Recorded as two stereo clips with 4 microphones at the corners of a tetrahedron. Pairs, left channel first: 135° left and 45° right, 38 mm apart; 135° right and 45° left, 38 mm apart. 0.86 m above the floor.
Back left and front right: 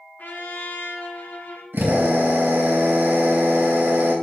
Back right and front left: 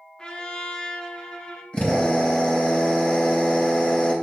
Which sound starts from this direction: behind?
A trumpet, at 0.2 s.